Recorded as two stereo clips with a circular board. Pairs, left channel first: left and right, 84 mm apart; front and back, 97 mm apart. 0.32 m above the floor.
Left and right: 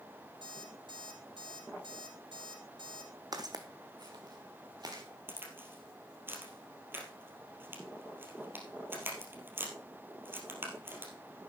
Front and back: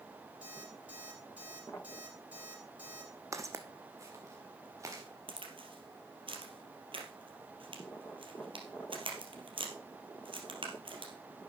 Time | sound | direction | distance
0.4 | an alarm clock | 105° right | 7 m
3.3 | footsteps | 125° right | 1.0 m
5.3 | a crack | 155° right | 2.5 m